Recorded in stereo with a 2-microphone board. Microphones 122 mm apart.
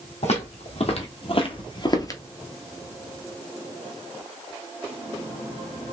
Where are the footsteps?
65° left (ahead or behind), 1.7 m; by 2.2 s 25° left (ahead or behind), 0.8 m.